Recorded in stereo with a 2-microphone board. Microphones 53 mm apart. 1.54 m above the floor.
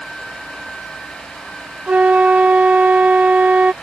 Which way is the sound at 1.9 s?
30° right (ahead or behind).